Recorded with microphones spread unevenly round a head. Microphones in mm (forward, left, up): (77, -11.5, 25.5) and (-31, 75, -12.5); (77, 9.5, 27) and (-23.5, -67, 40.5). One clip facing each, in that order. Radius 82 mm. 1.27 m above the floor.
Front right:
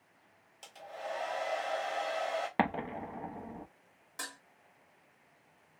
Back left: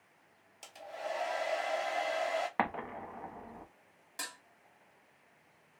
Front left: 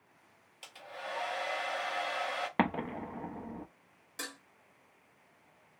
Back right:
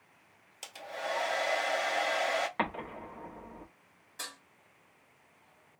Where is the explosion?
25° left, 0.6 m.